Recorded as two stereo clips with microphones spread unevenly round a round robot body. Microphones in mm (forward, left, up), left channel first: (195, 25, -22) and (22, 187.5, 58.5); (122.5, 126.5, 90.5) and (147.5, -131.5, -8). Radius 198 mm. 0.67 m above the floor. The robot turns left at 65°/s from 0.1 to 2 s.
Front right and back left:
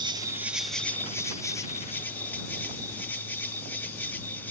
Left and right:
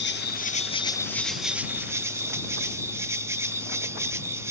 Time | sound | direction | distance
0.0 | an insect | 45° left | ?